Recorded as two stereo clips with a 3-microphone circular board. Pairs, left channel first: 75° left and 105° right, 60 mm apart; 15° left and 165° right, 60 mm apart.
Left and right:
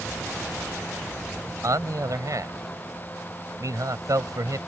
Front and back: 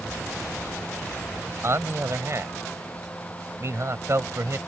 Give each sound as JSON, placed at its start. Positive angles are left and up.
{"t": 1.6, "sound": "a man speaking", "azimuth_deg": -125}